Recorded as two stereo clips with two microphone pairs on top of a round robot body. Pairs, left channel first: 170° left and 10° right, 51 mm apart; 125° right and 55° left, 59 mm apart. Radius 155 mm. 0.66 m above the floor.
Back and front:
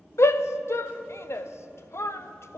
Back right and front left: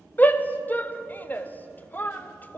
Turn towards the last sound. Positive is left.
turn(degrees=175)